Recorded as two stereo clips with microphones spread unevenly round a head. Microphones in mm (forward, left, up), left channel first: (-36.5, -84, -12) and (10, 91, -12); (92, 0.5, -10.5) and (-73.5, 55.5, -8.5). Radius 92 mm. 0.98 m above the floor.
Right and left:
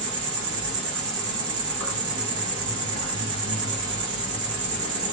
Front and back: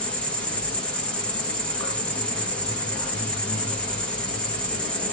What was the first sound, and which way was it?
An insect, 65° left.